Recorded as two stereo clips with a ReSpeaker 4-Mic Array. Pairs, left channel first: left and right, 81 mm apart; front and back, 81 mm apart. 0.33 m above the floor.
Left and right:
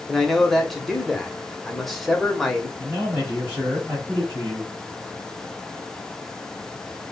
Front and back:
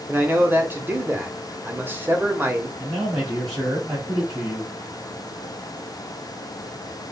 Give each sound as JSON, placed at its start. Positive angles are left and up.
{"t": 0.1, "sound": "a man speaking", "azimuth_deg": 180, "distance_m": 1.0}
{"t": 2.8, "sound": "a man speaking", "azimuth_deg": -145, "distance_m": 1.7}